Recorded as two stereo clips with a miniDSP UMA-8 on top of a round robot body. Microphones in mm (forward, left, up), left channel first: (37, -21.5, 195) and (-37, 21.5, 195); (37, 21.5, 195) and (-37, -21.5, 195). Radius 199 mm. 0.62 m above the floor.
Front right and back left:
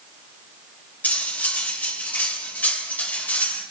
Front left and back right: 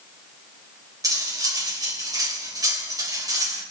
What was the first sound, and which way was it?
Cutlery clinking, 100° right.